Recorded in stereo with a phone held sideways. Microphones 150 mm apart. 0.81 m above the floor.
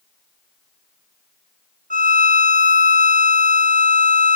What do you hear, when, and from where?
1.9 s a violin: 70° right (ahead or behind), 1.1 m